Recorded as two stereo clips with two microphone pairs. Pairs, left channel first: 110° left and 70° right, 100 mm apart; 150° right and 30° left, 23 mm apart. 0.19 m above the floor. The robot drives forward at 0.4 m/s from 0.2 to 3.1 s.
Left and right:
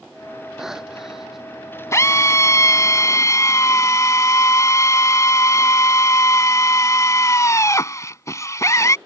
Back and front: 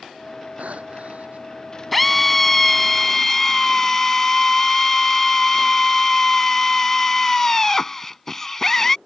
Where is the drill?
130° left; by 9.0 s 145° left.